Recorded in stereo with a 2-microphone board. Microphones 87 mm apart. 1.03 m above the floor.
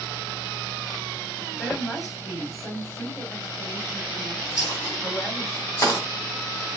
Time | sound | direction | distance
1.6 | a woman speaking | 15° left (ahead or behind) | 3 m
4.6 | a dropped coin | 35° left (ahead or behind) | 2 m